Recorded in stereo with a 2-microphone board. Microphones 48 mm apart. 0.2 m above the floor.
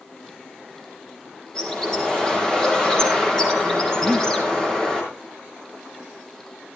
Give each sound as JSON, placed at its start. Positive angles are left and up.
{"t": 1.6, "sound": "a bird", "side_deg": 15, "distance_m": 5.0}
{"t": 4.0, "sound": "breathing", "side_deg": 15, "distance_m": 1.0}